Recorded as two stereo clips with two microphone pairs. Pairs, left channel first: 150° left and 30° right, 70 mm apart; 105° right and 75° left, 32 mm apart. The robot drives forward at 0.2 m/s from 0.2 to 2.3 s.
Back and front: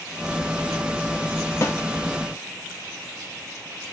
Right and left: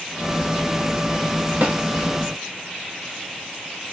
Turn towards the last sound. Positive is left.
turn(degrees=115)